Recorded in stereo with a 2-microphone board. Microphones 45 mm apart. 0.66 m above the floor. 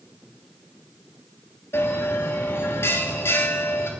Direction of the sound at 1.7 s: 60° left (ahead or behind).